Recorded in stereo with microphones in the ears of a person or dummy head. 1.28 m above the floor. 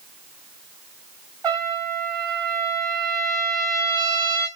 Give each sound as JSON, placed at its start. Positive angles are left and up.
{"t": 1.4, "sound": "a trumpet", "side_deg": -20, "distance_m": 1.2}